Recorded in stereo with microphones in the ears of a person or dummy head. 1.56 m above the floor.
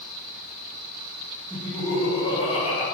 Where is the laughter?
Centre (ahead or behind), 0.9 m; by 2.9 s 35° left (ahead or behind), 1.1 m.